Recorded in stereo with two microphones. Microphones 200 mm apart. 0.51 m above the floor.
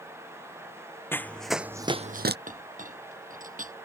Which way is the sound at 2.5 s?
40° right (ahead or behind).